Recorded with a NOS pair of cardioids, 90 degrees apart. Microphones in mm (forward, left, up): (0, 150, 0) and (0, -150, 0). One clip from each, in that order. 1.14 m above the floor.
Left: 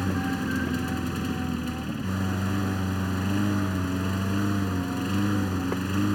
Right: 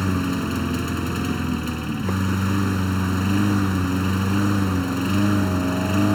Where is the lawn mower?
40° right.